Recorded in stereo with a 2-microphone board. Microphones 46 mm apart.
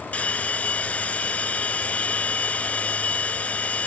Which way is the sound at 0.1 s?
35° left (ahead or behind).